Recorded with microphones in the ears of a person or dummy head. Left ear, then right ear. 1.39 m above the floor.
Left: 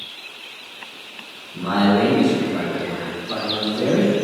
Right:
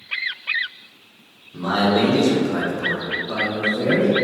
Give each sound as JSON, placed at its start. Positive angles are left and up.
{"t": 1.5, "sound": "a man speaking", "side_deg": -75, "distance_m": 1.1}